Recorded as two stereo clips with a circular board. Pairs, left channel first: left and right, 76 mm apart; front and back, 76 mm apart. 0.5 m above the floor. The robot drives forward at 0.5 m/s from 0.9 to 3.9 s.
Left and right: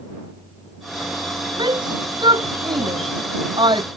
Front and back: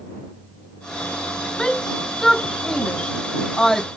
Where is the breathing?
No breathing in this recording.